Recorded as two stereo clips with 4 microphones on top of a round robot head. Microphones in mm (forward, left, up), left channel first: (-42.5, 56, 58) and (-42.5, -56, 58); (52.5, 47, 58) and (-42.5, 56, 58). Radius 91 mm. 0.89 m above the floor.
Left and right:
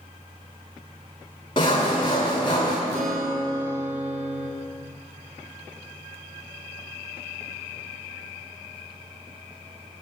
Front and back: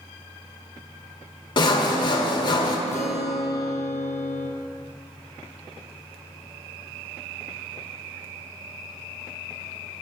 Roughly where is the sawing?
Ahead left.